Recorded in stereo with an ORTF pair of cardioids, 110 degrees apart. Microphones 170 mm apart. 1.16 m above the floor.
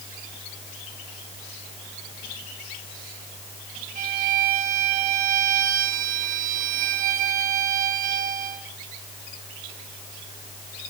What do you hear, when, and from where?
4.0 s a violin: 55° right, 3.5 m